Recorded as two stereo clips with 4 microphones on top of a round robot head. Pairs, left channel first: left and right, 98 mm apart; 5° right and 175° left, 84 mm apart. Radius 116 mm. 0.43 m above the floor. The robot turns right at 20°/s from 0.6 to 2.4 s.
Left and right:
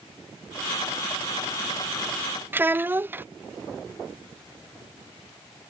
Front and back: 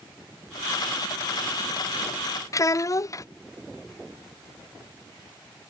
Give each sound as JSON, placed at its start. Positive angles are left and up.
{"t": 2.5, "sound": "a child speaking", "azimuth_deg": -30}